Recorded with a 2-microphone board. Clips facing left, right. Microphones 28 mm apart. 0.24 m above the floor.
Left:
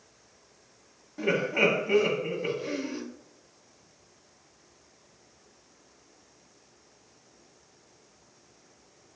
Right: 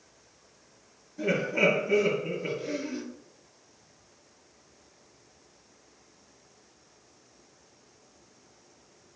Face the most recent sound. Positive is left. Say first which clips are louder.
# left 1 dB
turn(degrees=35)  # may be behind; listen again after turning